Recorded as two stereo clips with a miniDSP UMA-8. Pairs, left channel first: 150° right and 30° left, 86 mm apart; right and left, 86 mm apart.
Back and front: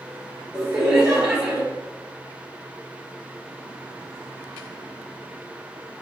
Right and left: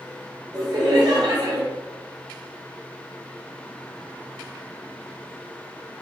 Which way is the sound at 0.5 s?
110° left.